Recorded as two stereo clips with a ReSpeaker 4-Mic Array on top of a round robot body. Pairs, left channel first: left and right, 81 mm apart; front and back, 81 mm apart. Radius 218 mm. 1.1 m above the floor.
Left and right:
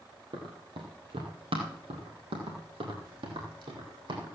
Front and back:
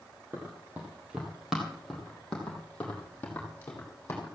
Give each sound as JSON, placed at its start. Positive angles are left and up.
{"t": 0.3, "sound": "running footsteps", "azimuth_deg": -120, "distance_m": 2.5}